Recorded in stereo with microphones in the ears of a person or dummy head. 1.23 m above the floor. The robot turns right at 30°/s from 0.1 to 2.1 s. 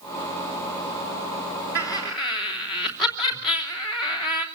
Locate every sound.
1.8 s laughter: 10° right (ahead or behind), 3 m; by 4.5 s 5° left (ahead or behind), 3 m